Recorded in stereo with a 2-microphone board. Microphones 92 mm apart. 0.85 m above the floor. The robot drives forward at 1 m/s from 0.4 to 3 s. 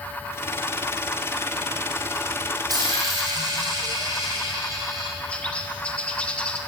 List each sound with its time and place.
2.7 s a dropped coin: 45° right (ahead or behind), 3 m; by 5.2 s 40° right (ahead or behind), 3.5 m
5.3 s a bird: 15° left (ahead or behind), 0.7 m